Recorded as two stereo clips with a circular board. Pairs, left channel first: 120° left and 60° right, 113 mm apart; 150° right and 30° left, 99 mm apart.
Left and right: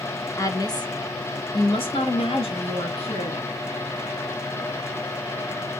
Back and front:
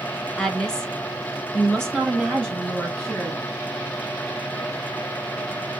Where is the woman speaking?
135° left, 0.7 m; by 3.5 s 125° left, 2 m.